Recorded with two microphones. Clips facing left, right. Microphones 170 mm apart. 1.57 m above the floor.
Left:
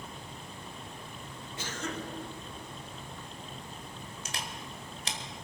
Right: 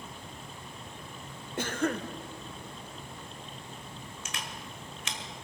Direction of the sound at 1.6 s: 50° right (ahead or behind).